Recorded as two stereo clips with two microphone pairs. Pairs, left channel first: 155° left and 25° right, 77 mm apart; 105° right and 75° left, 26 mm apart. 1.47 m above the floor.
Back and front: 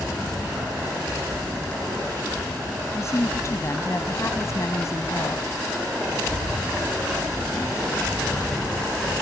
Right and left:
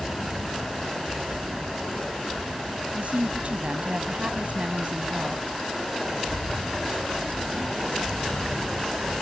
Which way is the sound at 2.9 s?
105° left.